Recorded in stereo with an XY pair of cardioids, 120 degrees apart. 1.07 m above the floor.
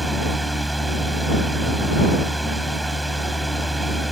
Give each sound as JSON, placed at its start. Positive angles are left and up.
{"t": 0.0, "sound": "a fan", "azimuth_deg": -5}